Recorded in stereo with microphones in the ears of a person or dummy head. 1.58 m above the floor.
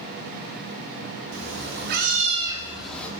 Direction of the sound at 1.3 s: 65° right (ahead or behind).